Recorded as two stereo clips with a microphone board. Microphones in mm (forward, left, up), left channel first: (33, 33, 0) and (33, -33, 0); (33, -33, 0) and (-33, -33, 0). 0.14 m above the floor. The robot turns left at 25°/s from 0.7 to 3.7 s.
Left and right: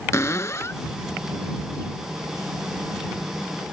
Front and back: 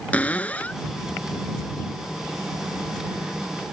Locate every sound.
0.1 s a cupboard door: 60° left; by 0.8 s 55° left